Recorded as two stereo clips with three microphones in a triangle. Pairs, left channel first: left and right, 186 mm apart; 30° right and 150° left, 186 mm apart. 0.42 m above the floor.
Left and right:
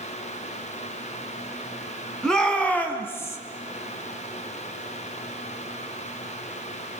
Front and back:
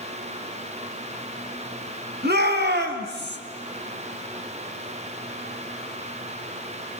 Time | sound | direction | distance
2.2 | a shout | 175° left | 4 m